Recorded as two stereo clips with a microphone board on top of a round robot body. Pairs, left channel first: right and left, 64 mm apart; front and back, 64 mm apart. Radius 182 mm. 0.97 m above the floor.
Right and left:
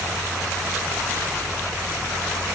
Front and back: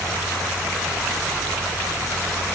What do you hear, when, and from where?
Only background noise.